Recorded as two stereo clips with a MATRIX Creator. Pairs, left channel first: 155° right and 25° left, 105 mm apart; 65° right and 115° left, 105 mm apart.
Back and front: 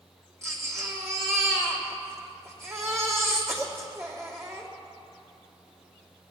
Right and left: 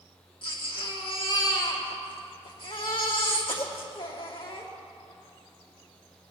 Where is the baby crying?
40° right, 3 m.